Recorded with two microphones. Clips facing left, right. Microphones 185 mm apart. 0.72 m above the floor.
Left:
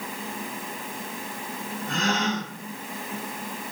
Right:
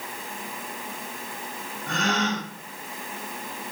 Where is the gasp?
80° right, 1.5 m.